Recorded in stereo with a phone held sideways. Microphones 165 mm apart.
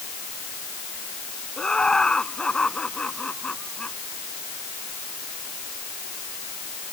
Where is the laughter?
5° left (ahead or behind).